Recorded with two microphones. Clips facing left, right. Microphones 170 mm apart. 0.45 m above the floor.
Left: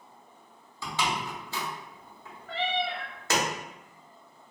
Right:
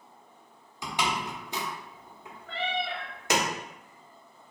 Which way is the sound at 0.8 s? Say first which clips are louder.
Even; 15° right (ahead or behind).